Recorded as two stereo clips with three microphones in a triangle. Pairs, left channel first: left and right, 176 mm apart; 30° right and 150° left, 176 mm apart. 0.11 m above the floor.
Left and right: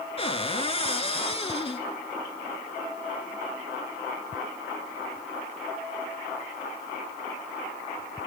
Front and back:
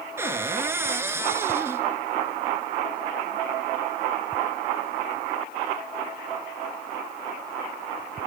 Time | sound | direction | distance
0.2 | a cupboard door | 85° left | 1.1 m